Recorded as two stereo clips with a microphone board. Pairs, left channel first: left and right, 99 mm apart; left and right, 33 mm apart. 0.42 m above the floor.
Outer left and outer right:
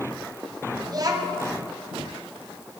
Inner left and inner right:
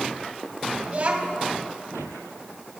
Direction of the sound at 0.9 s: 45° right (ahead or behind).